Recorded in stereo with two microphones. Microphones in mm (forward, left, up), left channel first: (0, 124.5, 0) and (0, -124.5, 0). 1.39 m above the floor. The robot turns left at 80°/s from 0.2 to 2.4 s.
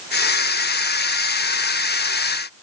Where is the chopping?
No chopping in this recording.